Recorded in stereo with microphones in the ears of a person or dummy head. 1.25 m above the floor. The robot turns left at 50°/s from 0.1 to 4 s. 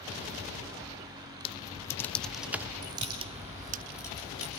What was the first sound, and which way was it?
Typing on a keyboard, 30° left (ahead or behind).